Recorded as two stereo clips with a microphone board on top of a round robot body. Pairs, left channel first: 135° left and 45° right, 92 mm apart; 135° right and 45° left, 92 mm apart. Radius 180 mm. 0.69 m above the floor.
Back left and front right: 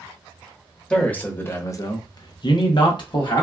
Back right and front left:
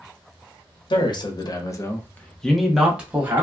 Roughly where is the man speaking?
Behind right.